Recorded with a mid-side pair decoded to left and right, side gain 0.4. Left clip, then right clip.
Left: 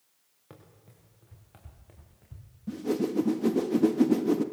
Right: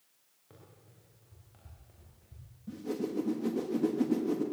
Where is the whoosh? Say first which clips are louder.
Left 7 dB; 55° left, 1.2 m.